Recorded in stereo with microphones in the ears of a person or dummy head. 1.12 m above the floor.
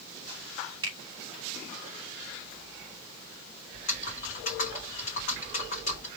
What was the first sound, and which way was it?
A finger snap, 25° right (ahead or behind).